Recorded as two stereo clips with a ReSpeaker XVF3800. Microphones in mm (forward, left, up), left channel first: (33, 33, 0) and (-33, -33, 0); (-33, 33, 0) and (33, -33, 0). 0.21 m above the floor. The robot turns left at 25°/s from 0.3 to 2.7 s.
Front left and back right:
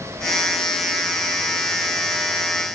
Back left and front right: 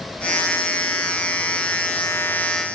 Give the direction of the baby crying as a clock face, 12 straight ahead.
I don't hear a baby crying.